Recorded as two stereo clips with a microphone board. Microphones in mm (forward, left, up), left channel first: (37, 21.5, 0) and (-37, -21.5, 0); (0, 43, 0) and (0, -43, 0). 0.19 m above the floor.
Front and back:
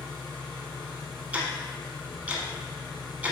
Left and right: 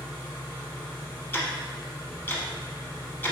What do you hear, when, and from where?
0.0 s an engine running: 35° left, 1.9 m
1.3 s ticking: 145° left, 0.8 m